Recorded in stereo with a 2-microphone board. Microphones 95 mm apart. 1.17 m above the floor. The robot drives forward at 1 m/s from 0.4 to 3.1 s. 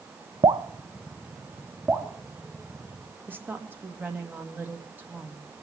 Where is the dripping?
50° right (ahead or behind), 0.6 m; by 2.1 s 15° right (ahead or behind), 2 m.